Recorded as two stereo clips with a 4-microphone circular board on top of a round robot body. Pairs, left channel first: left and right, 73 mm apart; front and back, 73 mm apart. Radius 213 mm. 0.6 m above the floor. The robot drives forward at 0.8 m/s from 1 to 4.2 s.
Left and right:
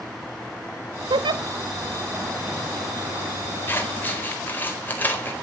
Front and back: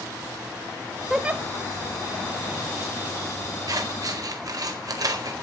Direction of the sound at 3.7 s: 150° left.